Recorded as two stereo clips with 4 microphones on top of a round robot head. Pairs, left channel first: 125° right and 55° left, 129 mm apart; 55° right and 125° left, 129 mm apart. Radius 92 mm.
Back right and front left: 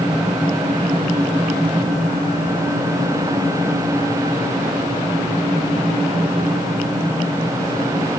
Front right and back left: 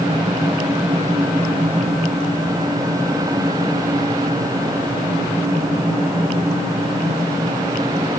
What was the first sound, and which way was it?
Only background noise.